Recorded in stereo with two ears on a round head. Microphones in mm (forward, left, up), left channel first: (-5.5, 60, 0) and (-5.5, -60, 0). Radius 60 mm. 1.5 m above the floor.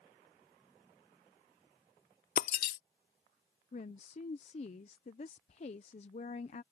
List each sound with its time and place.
2.4 s breaking glass: 65° left (ahead or behind)
3.7 s a woman speaking: 50° left (ahead or behind)